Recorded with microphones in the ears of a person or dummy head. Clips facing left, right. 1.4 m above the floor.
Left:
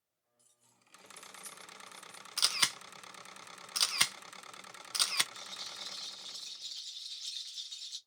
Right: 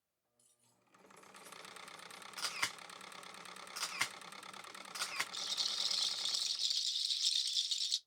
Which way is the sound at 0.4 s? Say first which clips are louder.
Left 2 dB; centre (ahead or behind).